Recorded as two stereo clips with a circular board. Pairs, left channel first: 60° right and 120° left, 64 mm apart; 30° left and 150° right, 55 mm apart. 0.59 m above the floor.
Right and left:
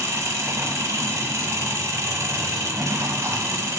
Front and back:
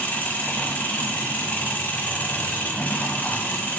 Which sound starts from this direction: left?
An engine running, at 0.0 s.